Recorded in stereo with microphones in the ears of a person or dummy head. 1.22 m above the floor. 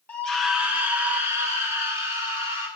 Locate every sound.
0.1 s a scream: 15° left (ahead or behind), 0.6 m; by 2.7 s 15° right (ahead or behind), 2.5 m